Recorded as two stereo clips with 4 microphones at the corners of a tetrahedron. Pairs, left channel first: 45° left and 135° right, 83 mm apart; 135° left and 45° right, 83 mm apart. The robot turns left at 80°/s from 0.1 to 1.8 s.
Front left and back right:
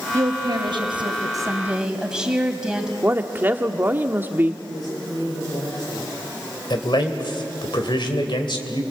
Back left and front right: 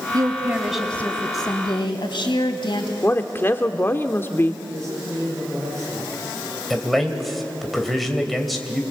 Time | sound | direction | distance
0.1 | a woman speaking | 80° right | 3.5 m
3.0 | a woman speaking | 175° left | 1.3 m
4.7 | a man speaking | 5° left | 10 m
6.7 | a man speaking | 45° left | 2.5 m